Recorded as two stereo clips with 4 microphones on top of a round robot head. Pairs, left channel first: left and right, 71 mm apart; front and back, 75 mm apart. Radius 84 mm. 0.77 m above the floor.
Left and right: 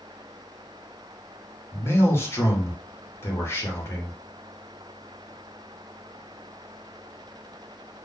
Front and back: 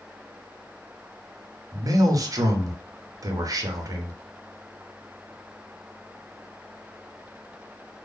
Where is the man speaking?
145° left, 1.0 m.